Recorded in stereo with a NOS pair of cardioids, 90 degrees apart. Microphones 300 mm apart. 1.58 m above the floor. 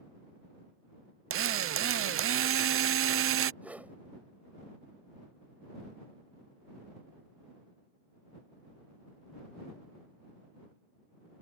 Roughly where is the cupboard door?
No cupboard door in this recording.